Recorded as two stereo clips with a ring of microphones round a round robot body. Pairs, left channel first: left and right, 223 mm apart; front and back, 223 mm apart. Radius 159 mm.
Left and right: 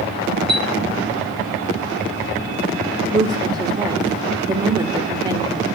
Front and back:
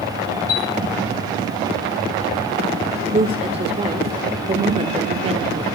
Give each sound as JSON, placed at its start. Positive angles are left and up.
{"t": 0.5, "sound": "a chime", "azimuth_deg": 0, "distance_m": 9.0}
{"t": 3.1, "sound": "a woman speaking", "azimuth_deg": -145, "distance_m": 1.4}